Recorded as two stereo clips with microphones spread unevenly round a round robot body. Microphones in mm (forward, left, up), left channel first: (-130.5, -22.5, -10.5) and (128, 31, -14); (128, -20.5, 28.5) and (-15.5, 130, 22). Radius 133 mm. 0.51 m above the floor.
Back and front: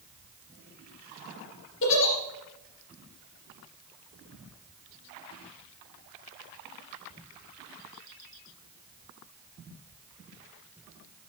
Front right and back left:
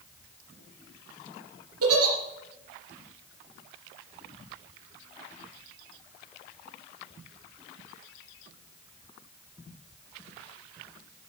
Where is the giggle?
150° left, 3 m.